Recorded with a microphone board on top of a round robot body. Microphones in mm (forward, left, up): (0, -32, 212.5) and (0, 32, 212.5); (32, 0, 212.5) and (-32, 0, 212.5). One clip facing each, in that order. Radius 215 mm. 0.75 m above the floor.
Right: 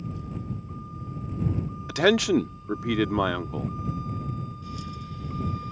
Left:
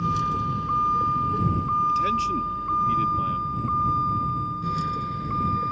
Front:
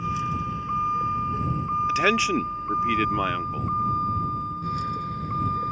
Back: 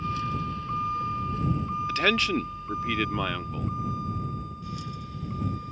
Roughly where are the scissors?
No scissors in this recording.